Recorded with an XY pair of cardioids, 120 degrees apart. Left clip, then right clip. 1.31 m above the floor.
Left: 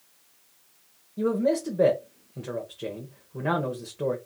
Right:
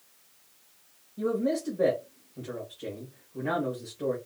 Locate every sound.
1.2 s a man speaking: 60° left, 1.1 m